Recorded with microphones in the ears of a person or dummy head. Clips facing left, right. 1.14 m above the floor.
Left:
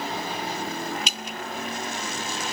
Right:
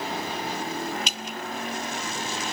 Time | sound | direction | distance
1.1 | dripping | 70° left (ahead or behind) | 2.5 m